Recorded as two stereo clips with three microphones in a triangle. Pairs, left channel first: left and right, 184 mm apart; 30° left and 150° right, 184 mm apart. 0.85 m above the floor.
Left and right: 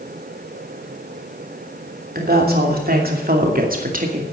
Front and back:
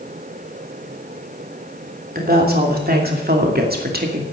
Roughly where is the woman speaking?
Behind right.